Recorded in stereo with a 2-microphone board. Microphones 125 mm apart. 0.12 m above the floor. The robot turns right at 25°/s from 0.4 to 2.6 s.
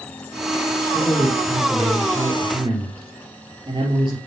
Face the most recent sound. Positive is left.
turn(degrees=-135)